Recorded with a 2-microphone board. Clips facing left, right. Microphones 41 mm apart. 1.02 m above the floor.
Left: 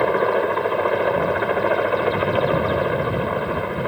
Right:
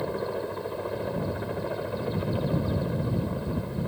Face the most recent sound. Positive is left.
turn(degrees=60)  # may be behind; listen again after turning